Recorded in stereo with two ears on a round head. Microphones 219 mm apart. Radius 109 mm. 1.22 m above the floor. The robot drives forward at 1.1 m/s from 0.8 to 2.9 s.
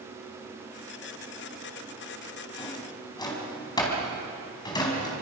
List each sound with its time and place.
2.6 s a drawer: 20° left (ahead or behind), 4 m